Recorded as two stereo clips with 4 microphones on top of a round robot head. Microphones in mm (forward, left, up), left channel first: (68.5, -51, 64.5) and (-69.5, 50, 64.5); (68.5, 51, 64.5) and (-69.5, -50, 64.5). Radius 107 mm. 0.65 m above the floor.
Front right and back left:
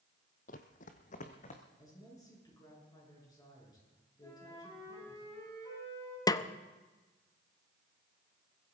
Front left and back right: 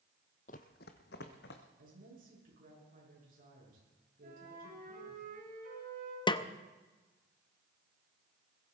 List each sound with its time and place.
0.5 s running footsteps: straight ahead, 0.9 m; by 1.6 s 10° left, 2.5 m
1.8 s a woman speaking: 105° right, 8 m
4.2 s a flute: 105° right, 6.5 m
6.3 s a snare drum: 10° left, 0.8 m